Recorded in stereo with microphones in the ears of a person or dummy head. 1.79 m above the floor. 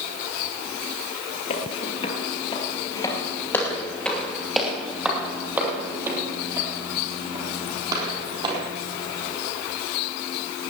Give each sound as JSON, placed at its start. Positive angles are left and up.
{"t": 1.5, "sound": "footsteps", "side_deg": 45, "distance_m": 2.5}